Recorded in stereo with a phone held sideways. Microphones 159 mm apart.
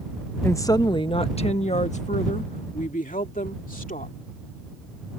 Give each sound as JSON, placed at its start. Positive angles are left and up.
{"t": 0.4, "sound": "a woman speaking", "side_deg": 15}